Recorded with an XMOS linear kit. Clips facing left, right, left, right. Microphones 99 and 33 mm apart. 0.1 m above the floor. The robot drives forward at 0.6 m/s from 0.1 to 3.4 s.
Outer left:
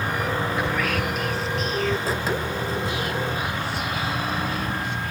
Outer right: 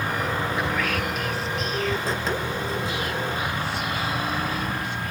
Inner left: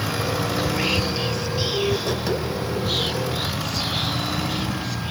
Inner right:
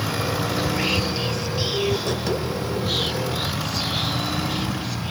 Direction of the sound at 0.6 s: Centre (ahead or behind).